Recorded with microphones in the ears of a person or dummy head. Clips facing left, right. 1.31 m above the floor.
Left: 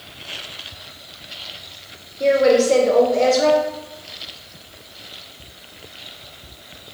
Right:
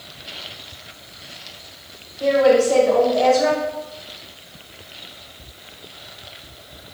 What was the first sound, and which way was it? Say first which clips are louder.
A woman speaking: even; 35° left (ahead or behind).